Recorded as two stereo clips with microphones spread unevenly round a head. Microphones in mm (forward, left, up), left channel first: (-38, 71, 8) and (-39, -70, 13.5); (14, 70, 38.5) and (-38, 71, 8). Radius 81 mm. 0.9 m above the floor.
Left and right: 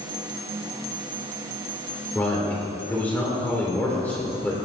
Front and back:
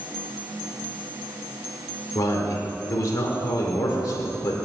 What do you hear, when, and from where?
2.1 s a man speaking: 10° left, 2.5 m